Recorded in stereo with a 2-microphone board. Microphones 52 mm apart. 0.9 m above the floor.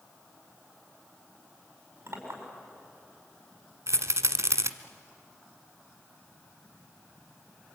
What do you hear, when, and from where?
2.1 s a clink: 55° right (ahead or behind), 5.5 m
3.9 s a rattle: 70° right (ahead or behind), 1.2 m